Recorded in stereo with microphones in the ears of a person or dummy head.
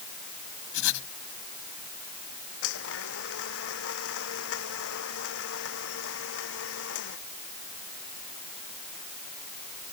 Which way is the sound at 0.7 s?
65° left (ahead or behind).